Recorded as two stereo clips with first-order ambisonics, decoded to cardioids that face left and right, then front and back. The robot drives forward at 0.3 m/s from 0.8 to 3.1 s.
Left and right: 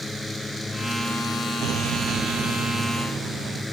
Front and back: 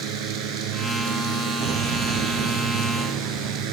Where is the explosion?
130° right; by 3.6 s 135° right.